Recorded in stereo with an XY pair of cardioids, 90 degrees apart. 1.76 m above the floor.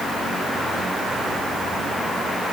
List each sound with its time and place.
Only background noise.